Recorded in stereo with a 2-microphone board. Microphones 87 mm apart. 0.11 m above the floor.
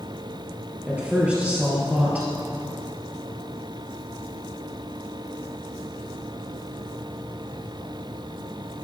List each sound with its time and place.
0.9 s a woman speaking: 15° right (ahead or behind), 2 m